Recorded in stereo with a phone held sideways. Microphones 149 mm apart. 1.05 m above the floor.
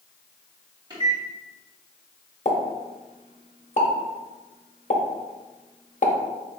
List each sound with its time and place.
0.9 s a microwave: 30° right (ahead or behind), 1.6 m
2.5 s a pop: 50° left (ahead or behind), 0.8 m